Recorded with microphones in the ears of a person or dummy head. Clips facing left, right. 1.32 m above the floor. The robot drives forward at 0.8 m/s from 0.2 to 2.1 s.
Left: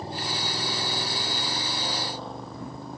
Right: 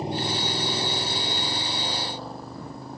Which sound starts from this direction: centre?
A motorcycle, at 0.0 s.